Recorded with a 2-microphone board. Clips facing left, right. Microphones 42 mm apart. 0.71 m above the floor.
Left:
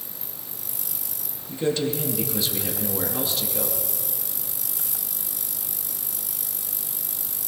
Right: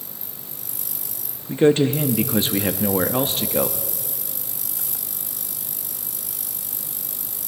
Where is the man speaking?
45° right (ahead or behind), 0.7 m.